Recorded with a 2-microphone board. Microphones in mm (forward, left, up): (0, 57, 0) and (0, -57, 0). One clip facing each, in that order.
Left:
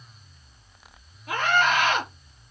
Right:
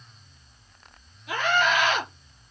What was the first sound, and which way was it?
A scream, 45° left (ahead or behind).